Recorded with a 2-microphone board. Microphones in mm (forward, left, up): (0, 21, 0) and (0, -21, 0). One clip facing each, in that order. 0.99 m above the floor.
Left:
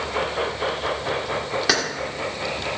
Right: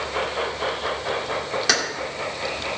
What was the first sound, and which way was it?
Keys jangling, 10° left (ahead or behind).